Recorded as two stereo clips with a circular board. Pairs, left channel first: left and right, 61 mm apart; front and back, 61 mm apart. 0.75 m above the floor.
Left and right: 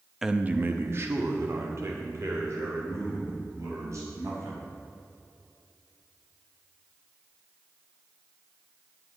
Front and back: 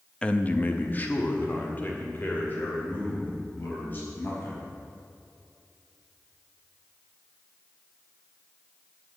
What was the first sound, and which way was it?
A man speaking, 15° right.